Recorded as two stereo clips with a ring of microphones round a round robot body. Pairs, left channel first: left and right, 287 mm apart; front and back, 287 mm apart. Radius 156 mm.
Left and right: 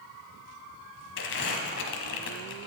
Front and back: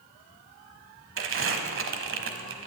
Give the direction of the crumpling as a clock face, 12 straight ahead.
7 o'clock.